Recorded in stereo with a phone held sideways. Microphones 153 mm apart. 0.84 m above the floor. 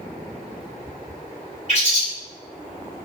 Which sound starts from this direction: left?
A bird, at 1.7 s.